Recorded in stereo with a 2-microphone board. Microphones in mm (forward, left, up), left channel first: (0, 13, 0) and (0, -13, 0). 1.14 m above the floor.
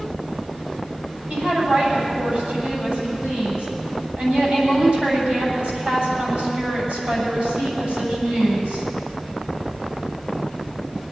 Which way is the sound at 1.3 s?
50° right (ahead or behind).